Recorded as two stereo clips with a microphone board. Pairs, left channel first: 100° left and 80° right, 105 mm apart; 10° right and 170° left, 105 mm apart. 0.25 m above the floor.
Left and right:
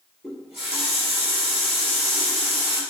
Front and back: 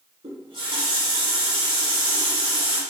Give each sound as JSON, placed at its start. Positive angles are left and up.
{"t": 0.2, "sound": "a running tap", "azimuth_deg": -170, "distance_m": 2.0}